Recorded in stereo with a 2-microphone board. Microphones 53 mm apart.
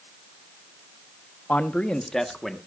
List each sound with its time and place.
1.5 s a man speaking: 30° left (ahead or behind), 1.0 m; by 2.6 s 5° left (ahead or behind), 1.5 m